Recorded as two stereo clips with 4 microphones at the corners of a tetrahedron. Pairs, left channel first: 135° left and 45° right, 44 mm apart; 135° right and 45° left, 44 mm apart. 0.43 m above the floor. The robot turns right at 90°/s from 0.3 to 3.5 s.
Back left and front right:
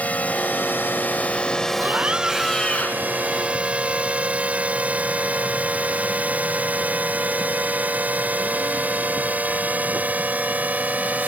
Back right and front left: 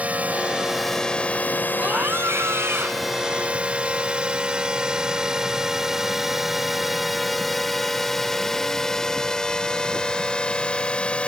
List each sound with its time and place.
0.0 s a drone: 90° left; by 11.3 s 80° right
1.8 s a scream: 15° right; by 3.1 s 105° left